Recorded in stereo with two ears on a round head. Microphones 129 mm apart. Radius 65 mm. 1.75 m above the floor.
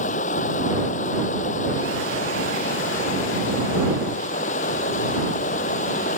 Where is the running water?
55° left (ahead or behind).